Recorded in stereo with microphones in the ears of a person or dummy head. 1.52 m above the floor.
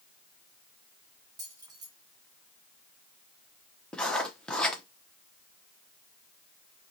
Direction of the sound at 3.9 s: 10° left (ahead or behind).